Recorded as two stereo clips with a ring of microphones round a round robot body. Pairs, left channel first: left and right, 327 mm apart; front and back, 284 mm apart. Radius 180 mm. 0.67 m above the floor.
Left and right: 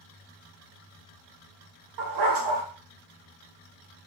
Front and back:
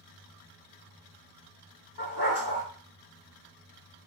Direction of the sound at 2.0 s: 60° right.